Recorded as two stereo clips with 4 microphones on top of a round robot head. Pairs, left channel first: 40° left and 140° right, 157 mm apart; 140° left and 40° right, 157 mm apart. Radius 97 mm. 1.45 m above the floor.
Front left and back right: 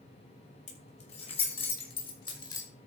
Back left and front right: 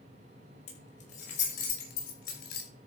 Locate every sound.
0.7 s keys jangling: 90° left, 6 m; by 2.7 s 105° left, 5.5 m